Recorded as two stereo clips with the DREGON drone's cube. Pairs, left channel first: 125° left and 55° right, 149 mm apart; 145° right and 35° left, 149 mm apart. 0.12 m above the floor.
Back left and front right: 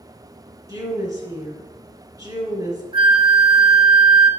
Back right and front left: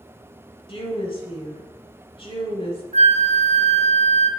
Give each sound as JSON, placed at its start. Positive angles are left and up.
{"t": 0.7, "sound": "a woman speaking", "azimuth_deg": -110, "distance_m": 1.8}
{"t": 2.9, "sound": "a flute", "azimuth_deg": -5, "distance_m": 0.8}